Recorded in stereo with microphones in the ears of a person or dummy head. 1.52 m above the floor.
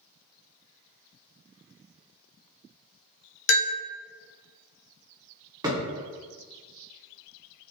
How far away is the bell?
About 0.8 m.